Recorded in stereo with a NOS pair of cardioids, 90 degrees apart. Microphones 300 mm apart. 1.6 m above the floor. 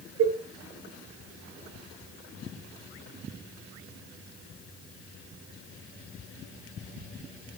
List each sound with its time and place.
0.2 s a cowbell: 50° right, 0.6 m